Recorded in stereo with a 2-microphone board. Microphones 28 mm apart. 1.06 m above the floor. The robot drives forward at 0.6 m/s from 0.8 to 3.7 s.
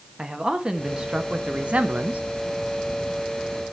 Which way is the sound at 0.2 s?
30° right (ahead or behind).